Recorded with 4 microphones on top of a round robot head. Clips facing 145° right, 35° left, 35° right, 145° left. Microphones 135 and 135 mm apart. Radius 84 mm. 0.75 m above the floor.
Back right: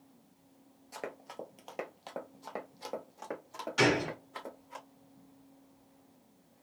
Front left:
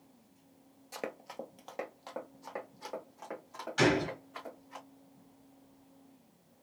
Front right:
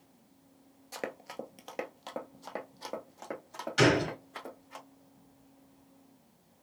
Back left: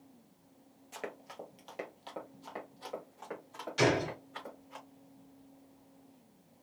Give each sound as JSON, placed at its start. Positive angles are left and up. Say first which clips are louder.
{"t": 0.9, "sound": "running footsteps", "louder": "front left 1 dB, front right 4 dB", "azimuth_deg": -20, "distance_m": 0.8}
{"t": 3.8, "sound": "a gunshot", "louder": "even, front right 3 dB", "azimuth_deg": -70, "distance_m": 3.0}